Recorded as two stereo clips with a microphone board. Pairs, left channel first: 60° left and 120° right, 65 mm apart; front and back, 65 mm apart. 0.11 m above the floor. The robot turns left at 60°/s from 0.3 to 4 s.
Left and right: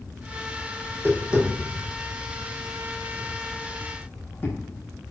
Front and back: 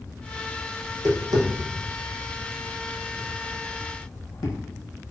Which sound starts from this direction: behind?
Tapping, at 0.8 s.